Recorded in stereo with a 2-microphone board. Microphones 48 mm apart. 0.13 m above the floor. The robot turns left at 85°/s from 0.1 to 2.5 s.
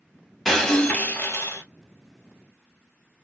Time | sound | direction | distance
0.5 | breaking glass | 175° right | 1.3 m